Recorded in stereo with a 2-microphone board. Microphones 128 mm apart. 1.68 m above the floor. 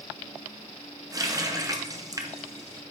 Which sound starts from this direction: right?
A running tap, at 1.1 s.